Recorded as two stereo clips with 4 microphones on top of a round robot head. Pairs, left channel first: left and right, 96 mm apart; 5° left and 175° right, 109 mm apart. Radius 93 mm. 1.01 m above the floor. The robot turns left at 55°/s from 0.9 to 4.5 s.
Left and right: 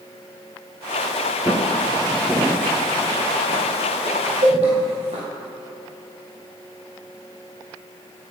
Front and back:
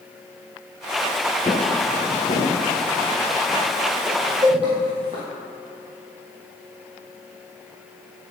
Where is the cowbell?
105° right, 2.5 m.